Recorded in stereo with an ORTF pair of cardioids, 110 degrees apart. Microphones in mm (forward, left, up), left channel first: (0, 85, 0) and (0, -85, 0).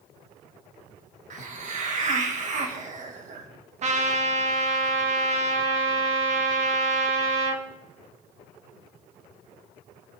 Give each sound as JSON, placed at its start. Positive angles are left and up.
{"t": 1.3, "sound": "a hiss", "azimuth_deg": -45, "distance_m": 1.9}
{"t": 3.8, "sound": "a trumpet", "azimuth_deg": -45, "distance_m": 1.7}